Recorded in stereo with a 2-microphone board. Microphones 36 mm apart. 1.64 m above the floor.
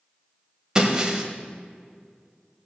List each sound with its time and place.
0.8 s breaking glass: 20° right (ahead or behind), 1.5 m